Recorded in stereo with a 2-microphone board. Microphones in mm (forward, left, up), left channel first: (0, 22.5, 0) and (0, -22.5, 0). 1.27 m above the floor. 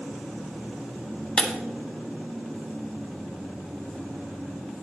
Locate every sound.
1.4 s breaking glass: 10° left (ahead or behind), 1.3 m